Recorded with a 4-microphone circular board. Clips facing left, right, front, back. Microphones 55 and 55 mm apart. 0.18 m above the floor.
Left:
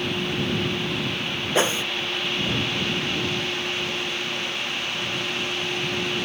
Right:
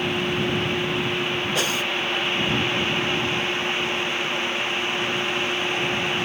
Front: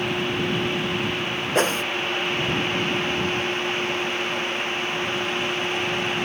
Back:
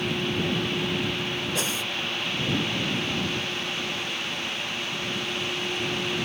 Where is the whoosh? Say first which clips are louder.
Left 7 dB, front 8 dB; 30° left.